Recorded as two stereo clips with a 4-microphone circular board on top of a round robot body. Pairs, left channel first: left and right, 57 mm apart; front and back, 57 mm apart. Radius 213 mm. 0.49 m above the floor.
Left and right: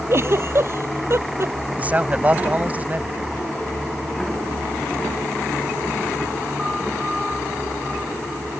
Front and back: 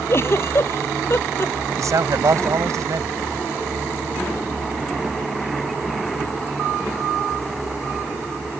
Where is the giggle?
45° right.